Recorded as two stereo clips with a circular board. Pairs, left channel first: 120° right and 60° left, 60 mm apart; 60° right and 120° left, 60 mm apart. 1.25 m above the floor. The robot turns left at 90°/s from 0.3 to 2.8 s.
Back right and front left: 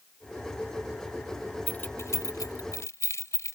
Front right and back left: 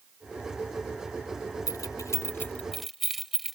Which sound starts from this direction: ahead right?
Keys jangling, at 1.7 s.